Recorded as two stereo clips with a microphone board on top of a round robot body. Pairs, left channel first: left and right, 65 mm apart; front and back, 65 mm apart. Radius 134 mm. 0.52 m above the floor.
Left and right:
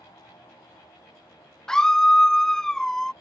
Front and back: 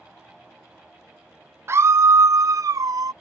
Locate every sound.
1.7 s a scream: 165° left; by 3.1 s 170° left